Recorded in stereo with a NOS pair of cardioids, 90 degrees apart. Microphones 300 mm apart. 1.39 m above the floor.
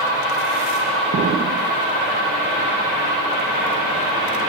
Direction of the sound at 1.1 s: 40° right.